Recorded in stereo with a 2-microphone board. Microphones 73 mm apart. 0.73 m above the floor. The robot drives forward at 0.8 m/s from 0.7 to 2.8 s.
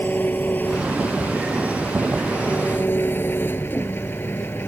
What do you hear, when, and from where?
0.0 s an engine running: 25° left (ahead or behind); by 4.7 s 30° left (ahead or behind)